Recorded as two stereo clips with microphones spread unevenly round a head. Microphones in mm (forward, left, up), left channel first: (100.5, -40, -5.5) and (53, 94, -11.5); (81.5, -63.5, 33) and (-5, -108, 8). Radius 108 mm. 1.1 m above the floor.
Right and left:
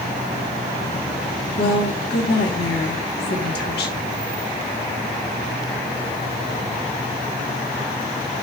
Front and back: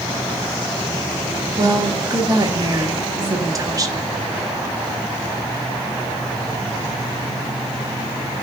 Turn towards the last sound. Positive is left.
turn(degrees=-100)